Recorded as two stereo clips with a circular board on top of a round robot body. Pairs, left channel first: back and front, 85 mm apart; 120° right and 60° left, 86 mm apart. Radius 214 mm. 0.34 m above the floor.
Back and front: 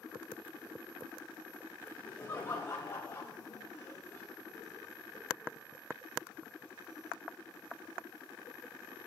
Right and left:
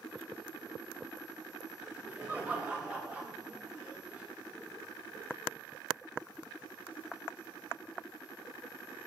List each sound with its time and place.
1.8 s laughter: 130° left, 2 m